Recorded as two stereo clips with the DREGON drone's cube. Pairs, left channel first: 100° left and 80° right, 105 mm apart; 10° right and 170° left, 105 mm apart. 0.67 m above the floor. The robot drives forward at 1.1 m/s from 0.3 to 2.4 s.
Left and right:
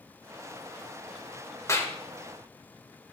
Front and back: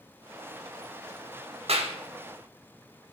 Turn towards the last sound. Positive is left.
turn(degrees=165)